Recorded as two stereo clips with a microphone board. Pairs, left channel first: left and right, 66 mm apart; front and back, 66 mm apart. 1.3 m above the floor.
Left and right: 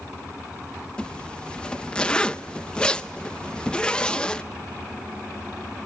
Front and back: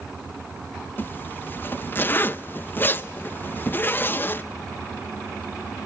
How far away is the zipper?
About 0.5 m.